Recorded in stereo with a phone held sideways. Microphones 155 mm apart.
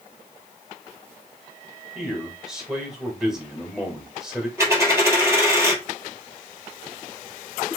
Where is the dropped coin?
15° right (ahead or behind), 1.8 m.